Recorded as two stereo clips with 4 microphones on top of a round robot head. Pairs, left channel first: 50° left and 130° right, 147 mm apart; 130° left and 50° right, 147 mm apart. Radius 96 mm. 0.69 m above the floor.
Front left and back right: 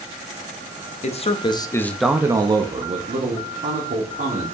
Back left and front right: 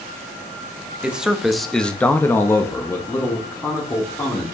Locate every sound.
1.0 s a man speaking: 35° left, 1.0 m; by 4.5 s 155° right, 2 m